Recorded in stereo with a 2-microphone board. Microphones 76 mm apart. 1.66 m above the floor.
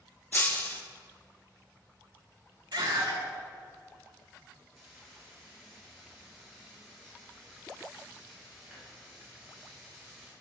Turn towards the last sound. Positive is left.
turn(degrees=5)  # may be behind; listen again after turning